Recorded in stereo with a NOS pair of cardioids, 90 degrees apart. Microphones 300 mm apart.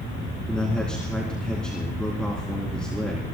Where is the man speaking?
5° left, 3 m.